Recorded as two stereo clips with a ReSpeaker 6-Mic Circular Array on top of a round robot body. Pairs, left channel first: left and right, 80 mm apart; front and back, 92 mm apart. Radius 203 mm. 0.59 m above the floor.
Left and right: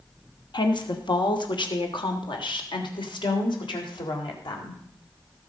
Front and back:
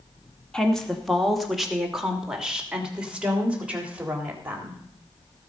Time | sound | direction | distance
0.5 | a woman speaking | 80° left | 2.5 m